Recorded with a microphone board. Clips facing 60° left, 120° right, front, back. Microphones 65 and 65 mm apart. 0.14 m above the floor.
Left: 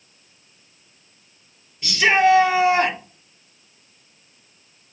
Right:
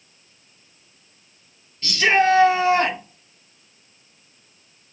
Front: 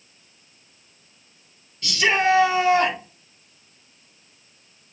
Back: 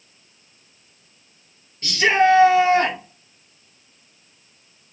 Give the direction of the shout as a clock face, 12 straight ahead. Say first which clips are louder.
Left 1 dB, back 4 dB; 8 o'clock.